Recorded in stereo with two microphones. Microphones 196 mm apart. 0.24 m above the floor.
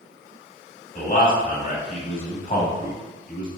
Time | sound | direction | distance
0.9 | a man speaking | 40° left (ahead or behind) | 1.1 m